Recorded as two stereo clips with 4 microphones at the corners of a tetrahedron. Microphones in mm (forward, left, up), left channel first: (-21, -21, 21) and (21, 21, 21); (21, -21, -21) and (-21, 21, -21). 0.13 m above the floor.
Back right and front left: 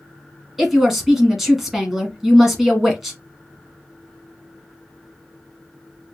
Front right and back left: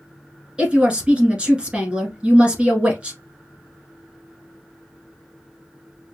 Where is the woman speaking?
120° left, 1.2 m.